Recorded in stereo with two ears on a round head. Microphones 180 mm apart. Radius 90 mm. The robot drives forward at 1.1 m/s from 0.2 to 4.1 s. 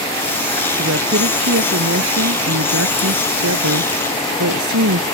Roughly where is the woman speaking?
Right.